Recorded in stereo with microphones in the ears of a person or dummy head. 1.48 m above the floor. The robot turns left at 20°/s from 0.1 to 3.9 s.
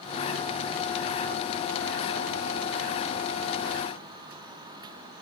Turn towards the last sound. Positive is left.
No sound to turn to.